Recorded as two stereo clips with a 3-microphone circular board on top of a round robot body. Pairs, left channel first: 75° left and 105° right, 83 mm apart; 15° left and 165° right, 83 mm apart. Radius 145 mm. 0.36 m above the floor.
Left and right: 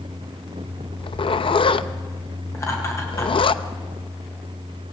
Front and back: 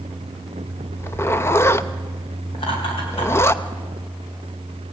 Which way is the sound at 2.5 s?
20° left.